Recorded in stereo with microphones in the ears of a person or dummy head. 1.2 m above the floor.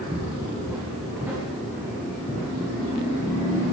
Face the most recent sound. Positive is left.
turn(degrees=-5)  # may be behind; listen again after turning